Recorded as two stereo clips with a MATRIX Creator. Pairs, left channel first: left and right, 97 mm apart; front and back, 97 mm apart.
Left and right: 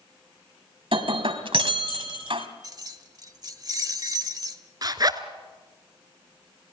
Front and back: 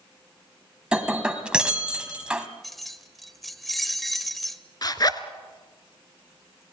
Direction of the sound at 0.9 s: 100° right.